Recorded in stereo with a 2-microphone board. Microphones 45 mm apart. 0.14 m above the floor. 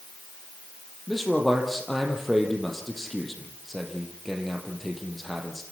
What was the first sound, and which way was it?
A man speaking, centre (ahead or behind).